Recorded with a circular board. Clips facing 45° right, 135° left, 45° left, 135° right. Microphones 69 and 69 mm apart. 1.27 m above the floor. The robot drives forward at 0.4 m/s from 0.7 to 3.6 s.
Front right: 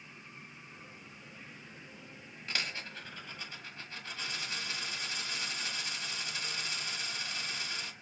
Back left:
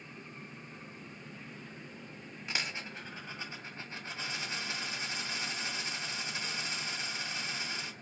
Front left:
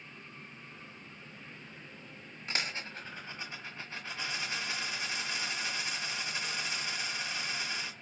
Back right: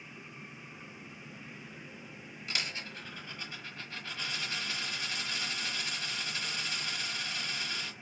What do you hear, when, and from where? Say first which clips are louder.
2.5 s a dropped coin: even, front left 2 dB; 70° left, 1.4 m; by 7.9 s 95° left, 1.3 m